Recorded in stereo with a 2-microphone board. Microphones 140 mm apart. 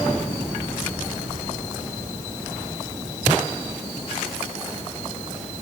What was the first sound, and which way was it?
Only background noise.